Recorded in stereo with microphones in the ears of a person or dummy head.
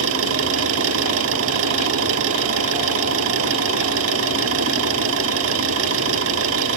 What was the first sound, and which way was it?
An engine running, 75° right (ahead or behind).